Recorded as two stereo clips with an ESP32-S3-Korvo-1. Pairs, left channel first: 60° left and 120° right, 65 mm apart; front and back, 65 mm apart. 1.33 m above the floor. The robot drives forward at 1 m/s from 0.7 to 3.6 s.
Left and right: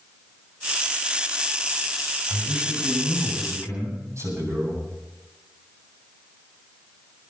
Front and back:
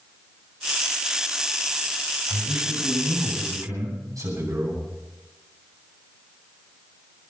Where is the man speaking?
150° right, 7 m; by 4.8 s 155° right, 8 m.